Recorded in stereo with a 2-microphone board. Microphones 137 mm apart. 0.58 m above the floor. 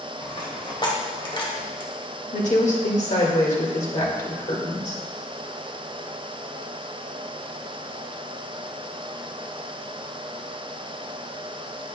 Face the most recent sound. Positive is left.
turn(degrees=60)  # may be behind; listen again after turning